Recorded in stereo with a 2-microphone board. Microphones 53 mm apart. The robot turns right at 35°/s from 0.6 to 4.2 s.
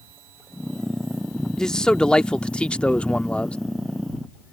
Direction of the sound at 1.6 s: 10° left (ahead or behind).